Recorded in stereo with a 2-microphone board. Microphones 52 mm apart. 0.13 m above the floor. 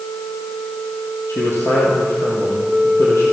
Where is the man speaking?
70° left (ahead or behind), 4.5 m.